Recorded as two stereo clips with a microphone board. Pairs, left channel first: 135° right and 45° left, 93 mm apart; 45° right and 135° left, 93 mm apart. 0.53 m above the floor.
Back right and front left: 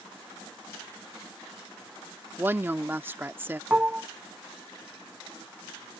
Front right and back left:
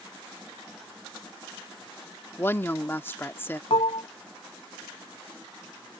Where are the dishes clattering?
30° right.